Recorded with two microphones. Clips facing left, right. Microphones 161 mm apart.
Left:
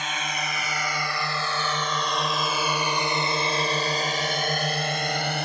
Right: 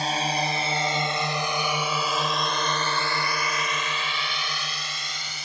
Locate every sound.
0.0 s a drone: 35° right (ahead or behind); by 5.5 s 65° left (ahead or behind)